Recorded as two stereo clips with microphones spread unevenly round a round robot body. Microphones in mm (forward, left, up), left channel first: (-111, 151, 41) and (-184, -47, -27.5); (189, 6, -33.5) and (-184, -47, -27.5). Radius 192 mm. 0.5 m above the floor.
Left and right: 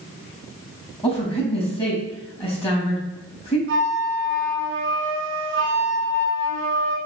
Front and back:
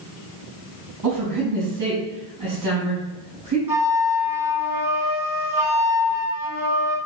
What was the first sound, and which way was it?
A woman speaking, 140° left.